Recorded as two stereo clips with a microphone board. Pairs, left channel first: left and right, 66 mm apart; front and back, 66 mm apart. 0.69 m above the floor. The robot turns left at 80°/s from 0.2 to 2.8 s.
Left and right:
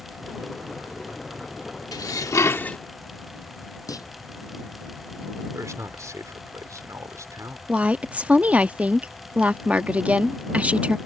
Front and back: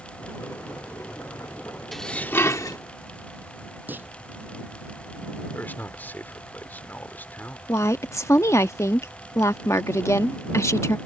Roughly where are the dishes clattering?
Left.